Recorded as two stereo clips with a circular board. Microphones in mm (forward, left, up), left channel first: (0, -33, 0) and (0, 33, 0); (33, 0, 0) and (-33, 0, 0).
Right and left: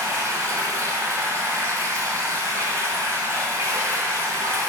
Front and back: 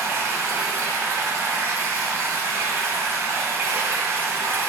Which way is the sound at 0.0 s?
130° left.